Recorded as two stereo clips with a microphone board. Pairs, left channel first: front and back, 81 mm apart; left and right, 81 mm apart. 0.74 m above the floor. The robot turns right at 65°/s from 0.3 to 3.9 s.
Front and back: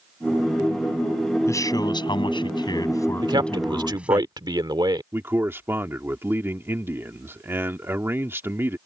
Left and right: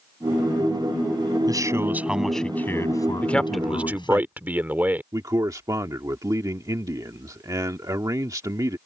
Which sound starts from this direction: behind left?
A man speaking, at 3.2 s.